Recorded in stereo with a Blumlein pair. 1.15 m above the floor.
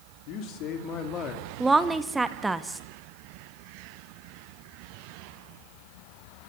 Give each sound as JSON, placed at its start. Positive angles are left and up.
{"t": 0.3, "sound": "a man speaking", "azimuth_deg": 40, "distance_m": 3.5}
{"t": 1.6, "sound": "a woman speaking", "azimuth_deg": -10, "distance_m": 1.2}